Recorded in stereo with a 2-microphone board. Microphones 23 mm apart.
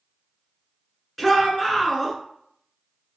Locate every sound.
1.2 s a shout: 10° left (ahead or behind), 1.1 m